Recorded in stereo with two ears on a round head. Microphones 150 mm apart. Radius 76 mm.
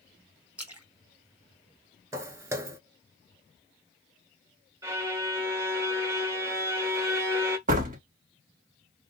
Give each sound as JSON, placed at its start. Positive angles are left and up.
{"t": 0.6, "sound": "a splash", "side_deg": -10, "distance_m": 1.0}
{"t": 2.1, "sound": "footsteps", "side_deg": -20, "distance_m": 0.6}
{"t": 4.8, "sound": "a violin", "side_deg": -20, "distance_m": 0.9}
{"t": 7.7, "sound": "a door slam", "side_deg": -50, "distance_m": 1.0}